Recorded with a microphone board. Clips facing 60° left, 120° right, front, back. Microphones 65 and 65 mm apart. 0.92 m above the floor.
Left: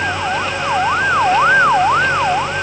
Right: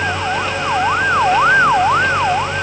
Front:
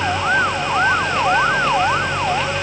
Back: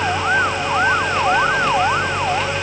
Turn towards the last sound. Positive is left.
No sound to turn to.